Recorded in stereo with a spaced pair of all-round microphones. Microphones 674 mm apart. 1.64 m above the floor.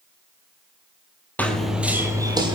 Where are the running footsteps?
Centre (ahead or behind), 1.9 m; by 2.6 s 5° right (ahead or behind), 2.5 m.